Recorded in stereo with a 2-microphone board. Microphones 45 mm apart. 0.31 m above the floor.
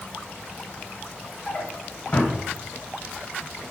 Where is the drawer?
25° left (ahead or behind), 0.6 m.